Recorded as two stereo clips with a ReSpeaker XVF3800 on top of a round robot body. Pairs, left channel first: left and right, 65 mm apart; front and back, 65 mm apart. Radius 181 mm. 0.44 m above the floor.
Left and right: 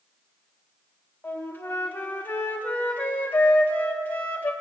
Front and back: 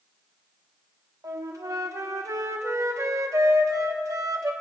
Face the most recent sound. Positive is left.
turn(degrees=150)